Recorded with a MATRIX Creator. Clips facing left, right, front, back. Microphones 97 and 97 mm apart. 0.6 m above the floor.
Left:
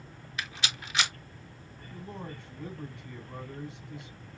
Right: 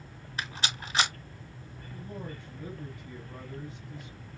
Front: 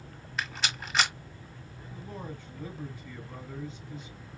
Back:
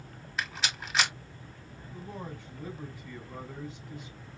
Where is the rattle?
95° right, 1.4 m.